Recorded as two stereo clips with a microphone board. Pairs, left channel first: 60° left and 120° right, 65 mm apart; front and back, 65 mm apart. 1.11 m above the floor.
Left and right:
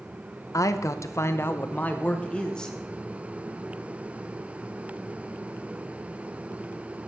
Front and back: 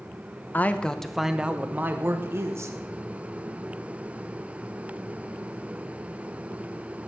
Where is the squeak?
I don't hear a squeak.